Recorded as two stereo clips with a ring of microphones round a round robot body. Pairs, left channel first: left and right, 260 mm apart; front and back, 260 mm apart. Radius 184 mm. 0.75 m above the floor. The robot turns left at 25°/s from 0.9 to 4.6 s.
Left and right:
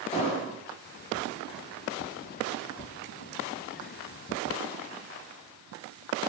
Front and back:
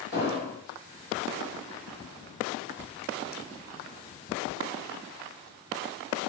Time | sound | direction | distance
0.1 | an explosion | 35° left | 0.8 m